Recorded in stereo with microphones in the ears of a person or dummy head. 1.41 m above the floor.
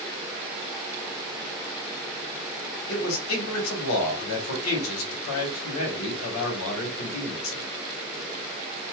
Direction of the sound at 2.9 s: 80° left.